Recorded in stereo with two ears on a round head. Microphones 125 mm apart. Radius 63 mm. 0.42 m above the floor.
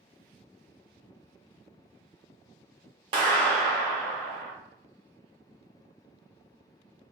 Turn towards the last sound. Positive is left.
turn(degrees=-35)  # may be behind; listen again after turning